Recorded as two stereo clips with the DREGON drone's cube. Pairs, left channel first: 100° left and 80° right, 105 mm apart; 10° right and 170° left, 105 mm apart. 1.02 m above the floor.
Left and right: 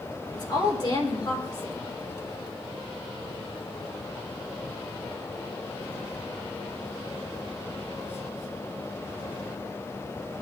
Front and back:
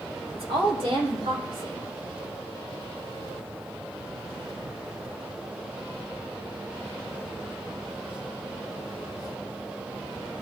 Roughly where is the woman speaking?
Behind left.